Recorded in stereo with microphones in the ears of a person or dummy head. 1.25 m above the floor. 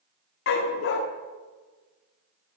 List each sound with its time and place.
0.5 s a dog barking: 55° left (ahead or behind), 1.2 m